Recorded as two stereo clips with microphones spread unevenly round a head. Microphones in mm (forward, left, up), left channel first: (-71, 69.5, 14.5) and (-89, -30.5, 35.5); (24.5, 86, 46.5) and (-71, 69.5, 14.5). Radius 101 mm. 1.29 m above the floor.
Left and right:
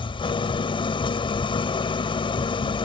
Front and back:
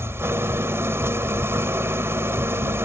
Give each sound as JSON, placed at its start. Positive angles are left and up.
{"t": 0.0, "sound": "an engine running", "azimuth_deg": 120}